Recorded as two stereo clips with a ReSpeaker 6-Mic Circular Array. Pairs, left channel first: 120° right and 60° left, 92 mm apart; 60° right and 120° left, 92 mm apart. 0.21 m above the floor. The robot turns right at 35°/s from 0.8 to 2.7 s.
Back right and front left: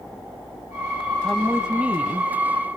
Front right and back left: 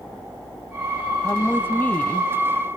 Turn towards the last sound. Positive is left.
turn(degrees=25)